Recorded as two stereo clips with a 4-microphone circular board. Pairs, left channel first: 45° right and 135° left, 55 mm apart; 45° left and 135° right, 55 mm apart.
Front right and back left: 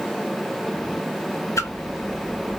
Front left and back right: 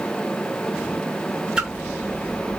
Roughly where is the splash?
Ahead right.